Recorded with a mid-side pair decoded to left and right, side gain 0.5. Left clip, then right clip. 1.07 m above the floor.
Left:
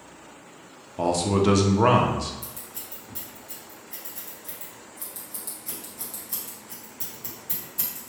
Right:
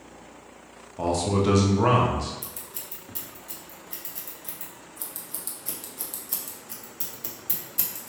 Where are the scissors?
35° right, 1.3 m.